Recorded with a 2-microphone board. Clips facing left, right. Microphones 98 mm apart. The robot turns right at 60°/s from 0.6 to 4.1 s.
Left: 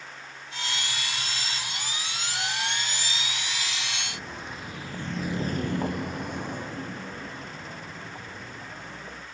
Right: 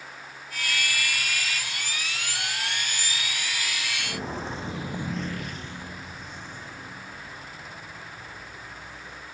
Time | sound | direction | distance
4.0 | footsteps | 30° right (ahead or behind) | 1.9 m